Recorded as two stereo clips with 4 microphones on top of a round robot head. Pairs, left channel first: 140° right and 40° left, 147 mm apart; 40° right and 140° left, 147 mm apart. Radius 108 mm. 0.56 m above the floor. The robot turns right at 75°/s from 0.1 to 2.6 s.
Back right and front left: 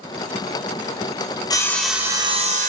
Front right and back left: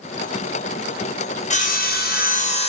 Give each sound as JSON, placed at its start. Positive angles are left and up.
{"t": 1.5, "sound": "sawing", "azimuth_deg": -75, "distance_m": 2.0}